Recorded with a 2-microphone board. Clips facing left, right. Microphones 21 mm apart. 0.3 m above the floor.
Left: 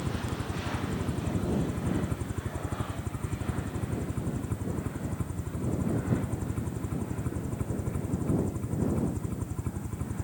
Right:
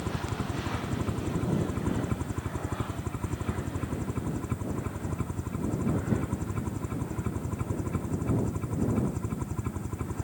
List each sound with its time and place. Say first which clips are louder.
0.0 s a helicopter: right 1 dB; 25° right (ahead or behind)